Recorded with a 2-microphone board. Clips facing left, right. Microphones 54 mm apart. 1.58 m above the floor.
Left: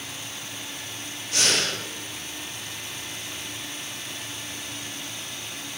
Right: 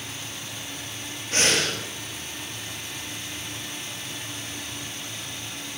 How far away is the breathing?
About 7 m.